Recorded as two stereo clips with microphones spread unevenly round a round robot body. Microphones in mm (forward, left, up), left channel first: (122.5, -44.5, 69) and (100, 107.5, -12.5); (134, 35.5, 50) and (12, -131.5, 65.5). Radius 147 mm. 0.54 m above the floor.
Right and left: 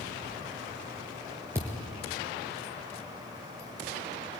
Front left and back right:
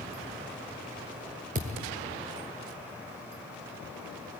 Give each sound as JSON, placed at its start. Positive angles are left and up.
{"t": 1.6, "sound": "a thud", "azimuth_deg": 170, "distance_m": 1.4}